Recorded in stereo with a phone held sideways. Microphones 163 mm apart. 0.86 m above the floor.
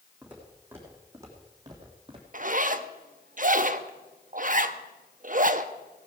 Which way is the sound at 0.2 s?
10° right (ahead or behind).